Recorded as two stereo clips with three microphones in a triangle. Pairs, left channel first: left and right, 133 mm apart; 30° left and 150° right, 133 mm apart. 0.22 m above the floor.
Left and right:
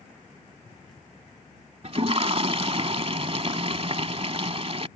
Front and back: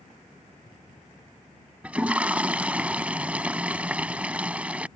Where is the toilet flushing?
70° right.